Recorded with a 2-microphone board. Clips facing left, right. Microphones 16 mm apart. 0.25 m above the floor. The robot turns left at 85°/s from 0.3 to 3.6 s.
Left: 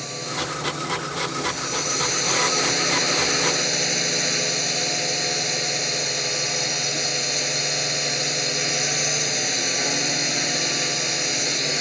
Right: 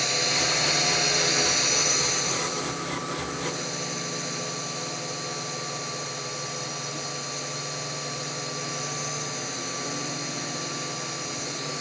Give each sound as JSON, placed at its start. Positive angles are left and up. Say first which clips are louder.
{"t": 0.0, "sound": "a drone", "louder": "right 4 dB", "azimuth_deg": -30}